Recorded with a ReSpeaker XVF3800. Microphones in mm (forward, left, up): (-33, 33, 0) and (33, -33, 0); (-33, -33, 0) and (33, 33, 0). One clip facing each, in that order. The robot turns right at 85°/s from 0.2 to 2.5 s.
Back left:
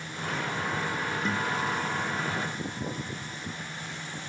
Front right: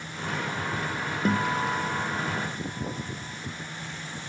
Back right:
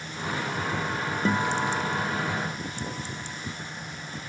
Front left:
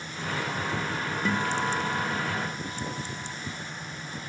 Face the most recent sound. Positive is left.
turn(degrees=25)